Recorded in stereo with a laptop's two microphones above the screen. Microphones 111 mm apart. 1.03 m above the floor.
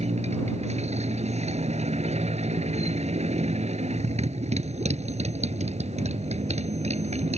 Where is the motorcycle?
80° right.